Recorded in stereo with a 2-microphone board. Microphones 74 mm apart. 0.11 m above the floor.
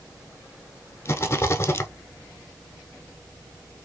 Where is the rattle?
35° left (ahead or behind), 0.6 m.